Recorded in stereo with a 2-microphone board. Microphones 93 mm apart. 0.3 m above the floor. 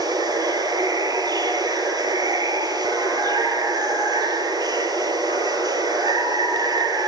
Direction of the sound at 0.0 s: 45° right (ahead or behind).